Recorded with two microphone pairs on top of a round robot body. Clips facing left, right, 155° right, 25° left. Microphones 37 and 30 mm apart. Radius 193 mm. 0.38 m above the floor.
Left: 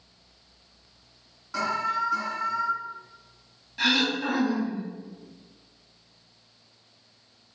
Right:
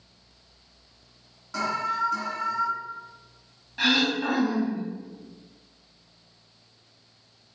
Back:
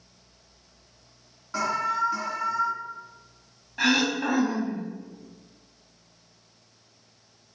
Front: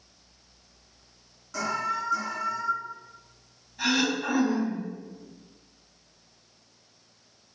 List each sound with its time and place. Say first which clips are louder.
1.5 s an alarm: even, back 3 dB; 175° left, 1.7 m
3.8 s throat clearing: right 1 dB, back 3 dB; 165° right, 0.6 m